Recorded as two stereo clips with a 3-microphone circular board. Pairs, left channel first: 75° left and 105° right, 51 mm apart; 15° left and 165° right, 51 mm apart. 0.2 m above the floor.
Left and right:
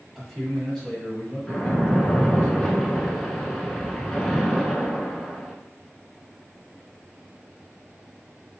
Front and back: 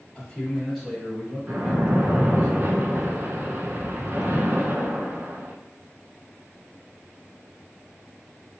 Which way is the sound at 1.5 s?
155° left.